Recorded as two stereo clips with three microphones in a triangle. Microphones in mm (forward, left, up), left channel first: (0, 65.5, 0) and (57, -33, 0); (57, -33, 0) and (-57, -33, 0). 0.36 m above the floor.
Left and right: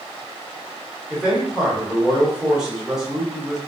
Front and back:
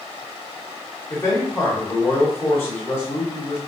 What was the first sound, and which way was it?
A man speaking, 15° left.